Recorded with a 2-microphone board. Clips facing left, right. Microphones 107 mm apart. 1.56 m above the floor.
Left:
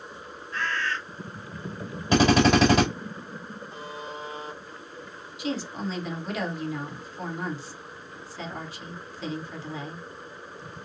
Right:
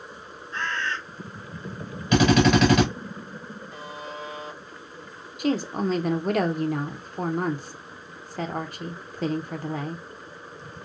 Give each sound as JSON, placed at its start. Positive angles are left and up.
{"t": 0.5, "sound": "a bird", "side_deg": -25, "distance_m": 0.8}
{"t": 2.1, "sound": "a drill", "side_deg": 30, "distance_m": 2.5}
{"t": 3.7, "sound": "a buzzer", "side_deg": 30, "distance_m": 1.1}
{"t": 5.4, "sound": "a woman speaking", "side_deg": -55, "distance_m": 0.8}